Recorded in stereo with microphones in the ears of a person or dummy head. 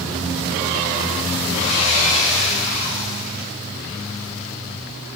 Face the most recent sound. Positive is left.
turn(degrees=25)  # may be behind; listen again after turning